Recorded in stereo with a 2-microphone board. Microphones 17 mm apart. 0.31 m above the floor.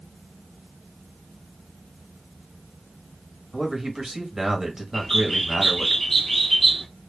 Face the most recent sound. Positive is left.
turn(degrees=15)  # may be behind; listen again after turning